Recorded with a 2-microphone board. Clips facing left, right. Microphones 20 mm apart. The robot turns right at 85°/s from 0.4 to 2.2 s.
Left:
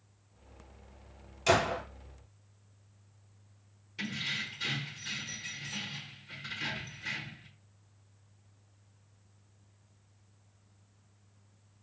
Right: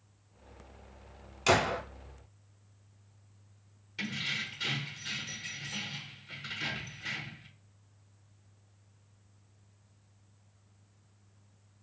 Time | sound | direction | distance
1.5 | a gunshot | 30° right (ahead or behind) | 1.4 m
4.0 | keys jangling | 15° right (ahead or behind) | 1.1 m